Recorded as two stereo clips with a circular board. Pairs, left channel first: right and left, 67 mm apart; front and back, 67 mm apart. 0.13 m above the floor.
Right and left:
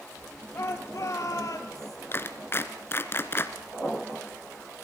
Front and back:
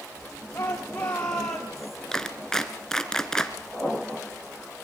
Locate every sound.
0.5 s a shout: 55° right, 2.5 m; by 2.0 s 95° right, 3 m
2.1 s a clap: 75° right, 1.7 m